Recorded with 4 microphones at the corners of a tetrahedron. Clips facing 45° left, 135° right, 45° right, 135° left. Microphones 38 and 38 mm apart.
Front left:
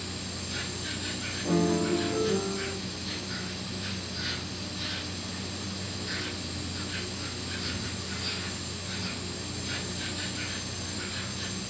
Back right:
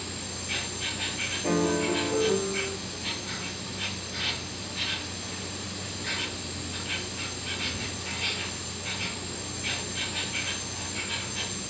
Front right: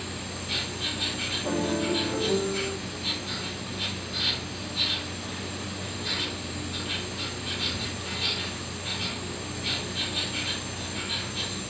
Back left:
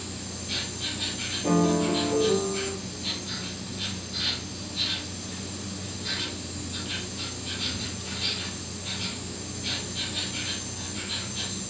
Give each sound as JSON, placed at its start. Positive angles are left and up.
{"t": 0.0, "sound": "an insect", "azimuth_deg": -125, "distance_m": 4.5}
{"t": 1.4, "sound": "a piano", "azimuth_deg": -175, "distance_m": 4.5}